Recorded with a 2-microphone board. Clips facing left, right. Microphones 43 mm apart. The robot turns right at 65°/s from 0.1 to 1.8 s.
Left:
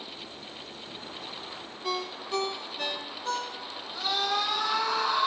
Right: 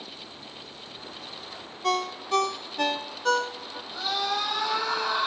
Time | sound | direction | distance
1.8 | a ringtone | 60° right (ahead or behind) | 0.8 m
3.9 | a scream | 85° right | 10 m